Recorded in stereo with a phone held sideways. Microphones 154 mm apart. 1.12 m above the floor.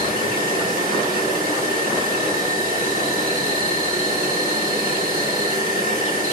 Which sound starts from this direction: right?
An insect, at 0.0 s.